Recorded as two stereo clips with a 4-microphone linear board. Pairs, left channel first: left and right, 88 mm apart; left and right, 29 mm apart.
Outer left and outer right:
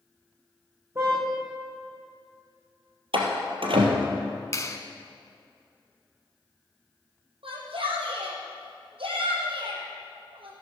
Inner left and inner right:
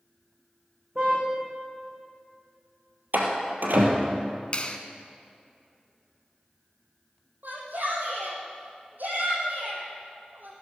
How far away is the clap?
About 1.3 m.